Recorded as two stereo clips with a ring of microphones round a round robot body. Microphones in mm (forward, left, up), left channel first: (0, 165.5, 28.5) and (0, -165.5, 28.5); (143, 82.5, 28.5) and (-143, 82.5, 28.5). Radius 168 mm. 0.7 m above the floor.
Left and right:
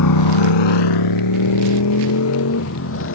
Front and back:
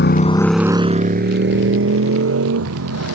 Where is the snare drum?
I don't hear a snare drum.